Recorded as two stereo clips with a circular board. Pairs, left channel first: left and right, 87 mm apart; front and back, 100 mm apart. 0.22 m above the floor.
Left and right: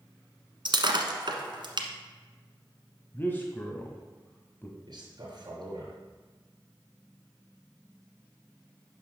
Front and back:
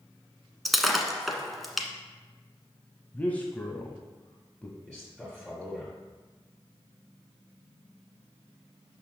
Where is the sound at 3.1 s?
55° left, 1.1 m.